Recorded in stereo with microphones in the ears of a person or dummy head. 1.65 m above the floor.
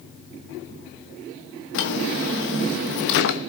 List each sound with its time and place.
1.7 s a drawer: 60° left (ahead or behind), 1.4 m